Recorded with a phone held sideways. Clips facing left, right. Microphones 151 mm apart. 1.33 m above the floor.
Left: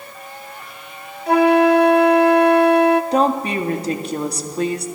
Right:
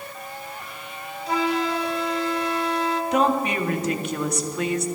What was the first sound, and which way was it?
A flute, 70° left (ahead or behind).